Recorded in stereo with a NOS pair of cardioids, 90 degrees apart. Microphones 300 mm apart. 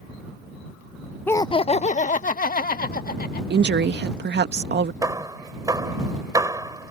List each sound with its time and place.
1.3 s laughter: 5° left; by 3.4 s 30° left
3.5 s a woman speaking: 35° right
5.0 s hammering: 10° right